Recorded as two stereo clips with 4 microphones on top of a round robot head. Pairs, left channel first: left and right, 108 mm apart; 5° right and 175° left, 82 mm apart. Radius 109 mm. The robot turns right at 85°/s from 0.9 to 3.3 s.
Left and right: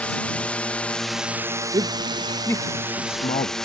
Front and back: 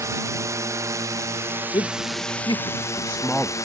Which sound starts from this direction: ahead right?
A man speaking, at 1.7 s.